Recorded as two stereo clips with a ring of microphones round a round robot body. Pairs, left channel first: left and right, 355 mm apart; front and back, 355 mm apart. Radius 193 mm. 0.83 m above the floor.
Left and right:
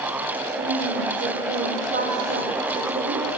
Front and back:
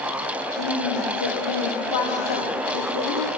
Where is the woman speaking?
20° right, 2.5 m.